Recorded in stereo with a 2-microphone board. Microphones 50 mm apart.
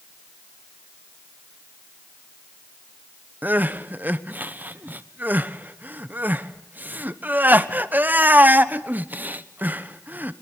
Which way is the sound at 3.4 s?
35° right (ahead or behind).